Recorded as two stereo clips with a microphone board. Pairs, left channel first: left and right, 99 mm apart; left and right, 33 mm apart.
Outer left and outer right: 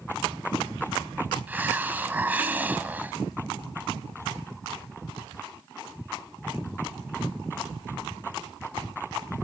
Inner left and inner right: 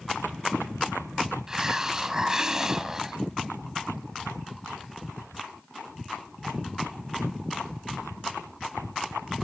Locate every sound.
1.5 s a hiss: 20° right (ahead or behind), 0.6 m